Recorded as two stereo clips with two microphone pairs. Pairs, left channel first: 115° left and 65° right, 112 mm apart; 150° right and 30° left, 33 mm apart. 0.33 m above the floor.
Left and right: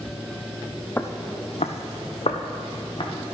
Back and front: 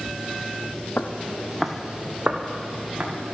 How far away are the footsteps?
About 1.0 m.